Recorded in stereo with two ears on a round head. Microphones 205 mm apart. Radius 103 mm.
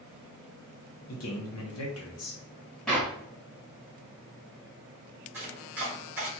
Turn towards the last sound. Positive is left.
turn(degrees=-10)  # may be behind; listen again after turning